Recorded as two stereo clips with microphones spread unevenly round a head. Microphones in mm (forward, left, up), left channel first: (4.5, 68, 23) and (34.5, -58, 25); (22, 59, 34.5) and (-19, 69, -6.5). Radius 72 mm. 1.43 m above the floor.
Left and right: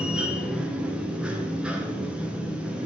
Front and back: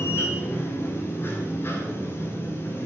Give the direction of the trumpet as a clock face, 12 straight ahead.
No trumpet in this recording.